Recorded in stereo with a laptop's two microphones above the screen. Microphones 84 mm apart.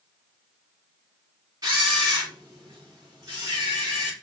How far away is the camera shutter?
About 2.5 m.